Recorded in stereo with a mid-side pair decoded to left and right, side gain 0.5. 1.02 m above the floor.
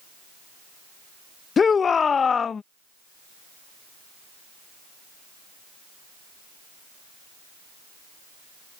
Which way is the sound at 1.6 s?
40° left.